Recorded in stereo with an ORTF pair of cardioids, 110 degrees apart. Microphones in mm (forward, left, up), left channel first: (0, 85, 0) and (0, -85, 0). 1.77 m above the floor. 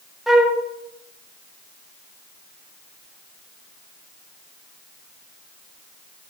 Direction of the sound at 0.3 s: Straight ahead.